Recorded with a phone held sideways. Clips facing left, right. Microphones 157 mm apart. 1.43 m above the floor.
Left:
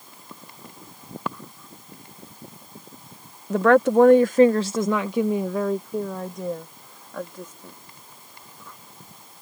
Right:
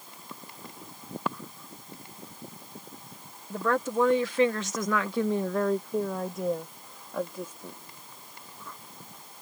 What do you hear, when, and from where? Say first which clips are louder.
3.5 s a woman speaking: left 11 dB; 75° left (ahead or behind); by 7.8 s 15° right (ahead or behind)